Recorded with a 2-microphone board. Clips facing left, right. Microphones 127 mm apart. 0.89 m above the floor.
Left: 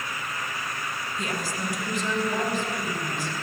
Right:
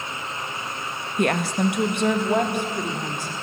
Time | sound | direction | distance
1.2 | a woman speaking | 60° right (ahead or behind) | 0.6 m